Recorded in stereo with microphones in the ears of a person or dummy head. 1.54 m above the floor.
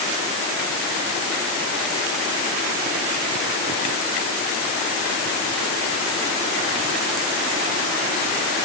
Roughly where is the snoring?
No snoring in this recording.